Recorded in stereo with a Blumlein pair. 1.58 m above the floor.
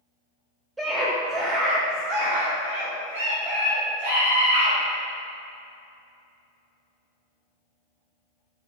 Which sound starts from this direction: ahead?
A scream, at 0.8 s.